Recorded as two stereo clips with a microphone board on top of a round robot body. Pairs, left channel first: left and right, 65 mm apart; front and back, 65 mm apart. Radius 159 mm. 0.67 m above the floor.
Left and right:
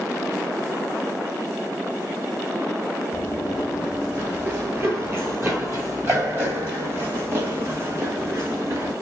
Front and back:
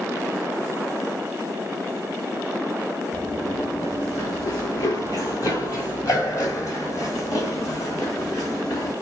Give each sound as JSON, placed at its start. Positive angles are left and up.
{"t": 3.1, "sound": "running footsteps", "azimuth_deg": 115, "distance_m": 0.6}